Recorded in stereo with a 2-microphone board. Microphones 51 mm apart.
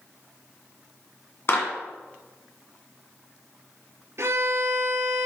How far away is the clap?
About 2 m.